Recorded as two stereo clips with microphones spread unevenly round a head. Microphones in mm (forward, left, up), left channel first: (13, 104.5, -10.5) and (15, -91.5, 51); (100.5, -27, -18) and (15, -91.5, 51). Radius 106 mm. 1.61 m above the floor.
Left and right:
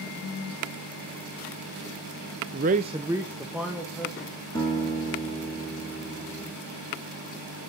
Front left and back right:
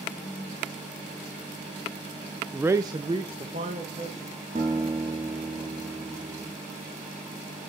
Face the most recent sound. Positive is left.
turn(degrees=170)